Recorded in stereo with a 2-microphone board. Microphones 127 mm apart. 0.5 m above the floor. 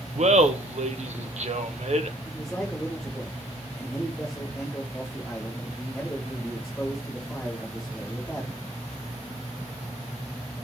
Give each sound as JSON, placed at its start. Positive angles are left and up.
{"t": 0.1, "sound": "laughter", "side_deg": -60, "distance_m": 1.3}
{"t": 2.2, "sound": "a man speaking", "side_deg": 0, "distance_m": 4.0}